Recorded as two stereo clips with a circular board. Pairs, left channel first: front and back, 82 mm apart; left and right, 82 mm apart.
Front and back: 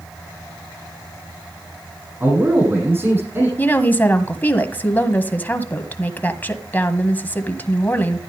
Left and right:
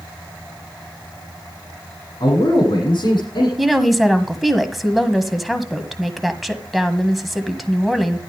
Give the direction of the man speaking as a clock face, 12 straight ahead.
8 o'clock.